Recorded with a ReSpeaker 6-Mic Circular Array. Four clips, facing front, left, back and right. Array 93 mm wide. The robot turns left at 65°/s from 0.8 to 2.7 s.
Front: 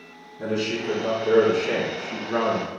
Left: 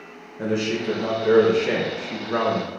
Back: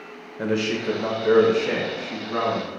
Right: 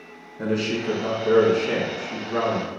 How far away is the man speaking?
About 1.3 m.